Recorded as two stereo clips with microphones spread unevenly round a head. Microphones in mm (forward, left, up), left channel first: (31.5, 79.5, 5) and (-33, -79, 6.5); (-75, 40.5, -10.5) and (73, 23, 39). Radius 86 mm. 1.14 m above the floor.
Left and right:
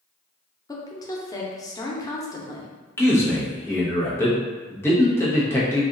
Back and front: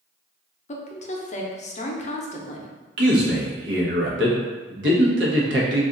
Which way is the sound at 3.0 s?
10° right.